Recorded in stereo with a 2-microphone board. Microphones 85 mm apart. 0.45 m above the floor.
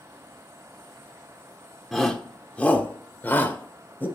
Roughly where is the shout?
Centre.